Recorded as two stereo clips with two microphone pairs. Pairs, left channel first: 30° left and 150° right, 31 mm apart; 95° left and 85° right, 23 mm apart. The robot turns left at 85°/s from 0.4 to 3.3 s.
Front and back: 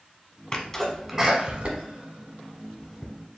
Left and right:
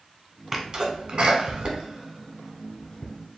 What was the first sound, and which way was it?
A sneeze, 15° right.